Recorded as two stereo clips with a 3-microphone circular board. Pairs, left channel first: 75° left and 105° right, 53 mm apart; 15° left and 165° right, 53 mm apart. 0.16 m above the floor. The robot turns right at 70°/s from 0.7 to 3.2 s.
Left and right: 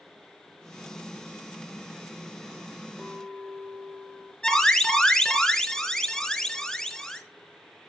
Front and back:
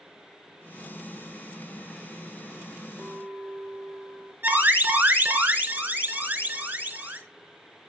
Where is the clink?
175° right, 3.5 m; by 4.3 s 160° right, 3.5 m.